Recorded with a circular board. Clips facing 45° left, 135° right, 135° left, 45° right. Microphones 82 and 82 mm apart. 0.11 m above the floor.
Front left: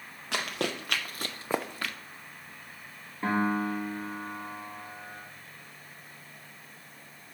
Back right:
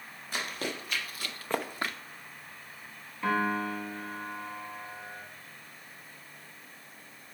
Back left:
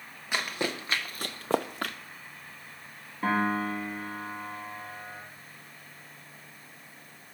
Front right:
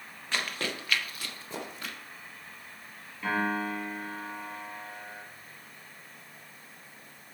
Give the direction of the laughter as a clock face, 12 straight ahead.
No laughter in this recording.